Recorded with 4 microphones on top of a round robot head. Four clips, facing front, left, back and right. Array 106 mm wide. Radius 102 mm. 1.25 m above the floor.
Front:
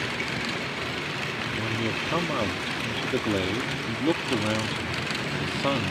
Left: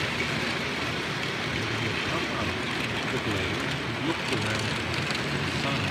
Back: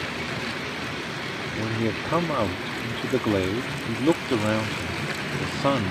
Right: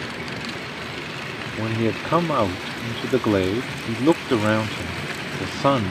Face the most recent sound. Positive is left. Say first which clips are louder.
# right 7 dB, back 4 dB
turn(degrees=-100)